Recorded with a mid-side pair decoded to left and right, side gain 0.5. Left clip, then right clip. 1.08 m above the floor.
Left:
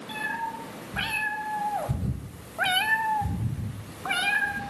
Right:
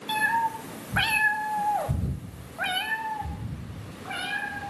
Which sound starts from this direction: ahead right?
A cat meowing, at 0.1 s.